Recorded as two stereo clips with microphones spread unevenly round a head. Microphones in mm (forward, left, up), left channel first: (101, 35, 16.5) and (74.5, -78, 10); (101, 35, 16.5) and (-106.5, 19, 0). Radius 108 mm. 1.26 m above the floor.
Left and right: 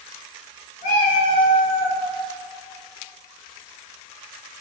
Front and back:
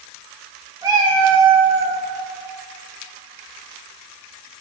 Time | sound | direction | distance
0.8 | a cat meowing | 110° left | 3.5 m